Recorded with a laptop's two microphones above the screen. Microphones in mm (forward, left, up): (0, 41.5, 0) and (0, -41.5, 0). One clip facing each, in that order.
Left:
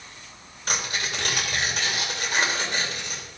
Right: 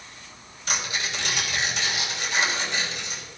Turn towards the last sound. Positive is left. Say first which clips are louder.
# even
turn(degrees=45)  # may be behind; listen again after turning